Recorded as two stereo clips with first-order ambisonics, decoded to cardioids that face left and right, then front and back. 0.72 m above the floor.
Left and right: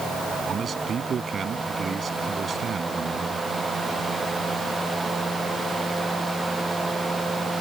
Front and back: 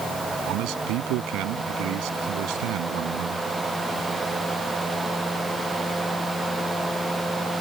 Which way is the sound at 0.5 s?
155° right.